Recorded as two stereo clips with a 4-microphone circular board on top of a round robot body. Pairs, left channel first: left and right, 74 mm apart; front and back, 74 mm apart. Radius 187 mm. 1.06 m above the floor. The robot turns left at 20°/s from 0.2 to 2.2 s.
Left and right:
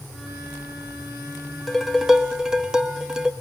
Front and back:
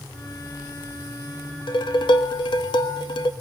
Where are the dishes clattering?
5° left, 1.2 m; by 3.3 s 10° right, 1.2 m.